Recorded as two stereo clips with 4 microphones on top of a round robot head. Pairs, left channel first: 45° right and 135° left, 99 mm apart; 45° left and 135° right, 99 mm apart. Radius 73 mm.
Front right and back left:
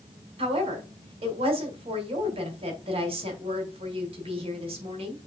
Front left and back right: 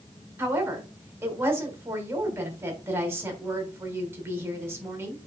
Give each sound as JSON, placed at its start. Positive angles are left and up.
{"t": 0.4, "sound": "a woman speaking", "azimuth_deg": 160, "distance_m": 3.0}